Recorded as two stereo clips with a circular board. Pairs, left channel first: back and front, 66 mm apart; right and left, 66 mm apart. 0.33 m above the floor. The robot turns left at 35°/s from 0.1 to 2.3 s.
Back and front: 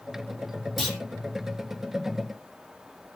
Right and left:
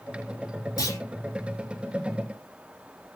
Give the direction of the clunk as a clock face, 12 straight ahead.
3 o'clock.